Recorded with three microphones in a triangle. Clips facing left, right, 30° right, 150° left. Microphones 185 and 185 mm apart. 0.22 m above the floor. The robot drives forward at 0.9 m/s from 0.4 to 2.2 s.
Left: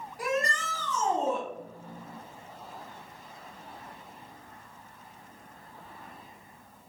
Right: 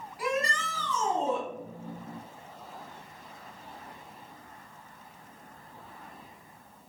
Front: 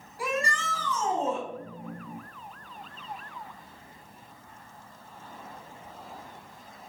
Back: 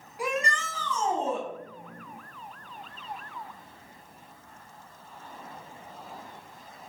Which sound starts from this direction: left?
A shout, at 0.2 s.